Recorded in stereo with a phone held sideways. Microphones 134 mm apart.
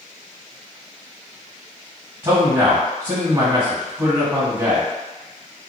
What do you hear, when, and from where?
2.2 s a man speaking: 30° right (ahead or behind), 1.2 m